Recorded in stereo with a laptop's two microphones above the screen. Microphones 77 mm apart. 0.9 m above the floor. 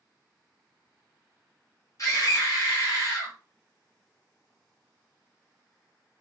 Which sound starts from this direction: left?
A scream, at 2.0 s.